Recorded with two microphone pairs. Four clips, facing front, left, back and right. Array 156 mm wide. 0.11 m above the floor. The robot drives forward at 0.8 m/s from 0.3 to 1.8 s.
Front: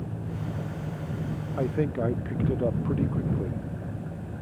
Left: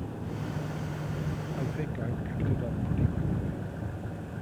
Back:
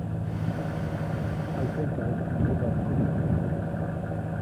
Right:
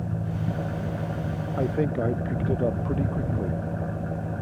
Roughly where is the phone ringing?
I don't hear a phone ringing.